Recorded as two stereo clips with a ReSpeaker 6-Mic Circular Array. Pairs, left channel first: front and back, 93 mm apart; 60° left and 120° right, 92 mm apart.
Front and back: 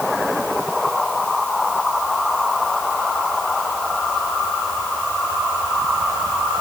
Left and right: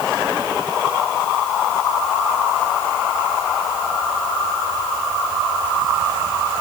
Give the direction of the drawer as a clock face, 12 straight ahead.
No drawer in this recording.